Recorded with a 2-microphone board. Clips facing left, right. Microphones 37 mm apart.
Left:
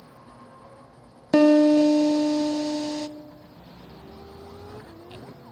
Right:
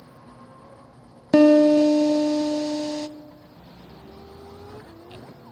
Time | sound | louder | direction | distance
1.3 | a piano | right 2 dB | 5° right (ahead or behind) | 0.5 m